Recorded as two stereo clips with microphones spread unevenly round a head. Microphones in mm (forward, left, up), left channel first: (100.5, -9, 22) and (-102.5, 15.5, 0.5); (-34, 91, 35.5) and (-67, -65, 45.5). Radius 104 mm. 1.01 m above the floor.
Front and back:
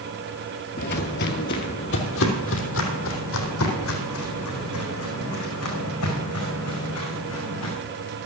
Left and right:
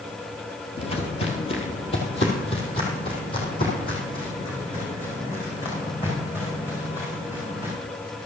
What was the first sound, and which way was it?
Footsteps, 15° left.